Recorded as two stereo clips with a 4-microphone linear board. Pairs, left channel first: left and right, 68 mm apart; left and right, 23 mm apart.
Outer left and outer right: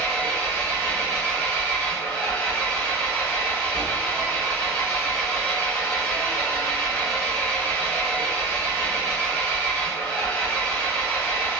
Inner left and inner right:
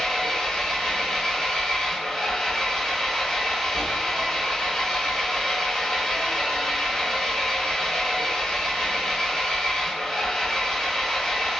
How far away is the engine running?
About 1.5 m.